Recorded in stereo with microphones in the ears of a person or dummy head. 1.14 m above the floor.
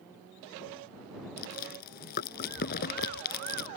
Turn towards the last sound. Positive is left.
turn(degrees=55)  # may be behind; listen again after turning